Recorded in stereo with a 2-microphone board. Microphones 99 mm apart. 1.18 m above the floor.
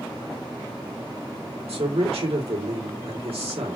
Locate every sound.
1.7 s a man speaking: 80° right, 3 m